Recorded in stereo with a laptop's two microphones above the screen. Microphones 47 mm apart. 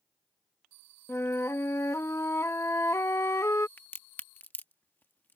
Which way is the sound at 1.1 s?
75° left (ahead or behind).